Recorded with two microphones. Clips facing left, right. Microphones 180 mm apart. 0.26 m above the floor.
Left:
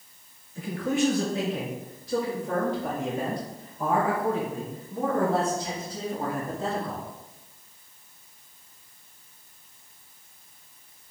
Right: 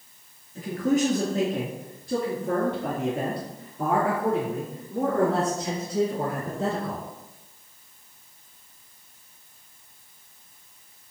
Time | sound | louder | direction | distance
0.6 | a man speaking | right 3 dB | 35° right (ahead or behind) | 3 m